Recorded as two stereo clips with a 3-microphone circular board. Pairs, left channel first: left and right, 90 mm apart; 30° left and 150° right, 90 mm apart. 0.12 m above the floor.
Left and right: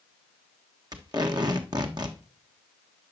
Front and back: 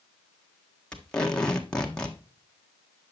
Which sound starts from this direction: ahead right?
Tape being pulled, at 0.9 s.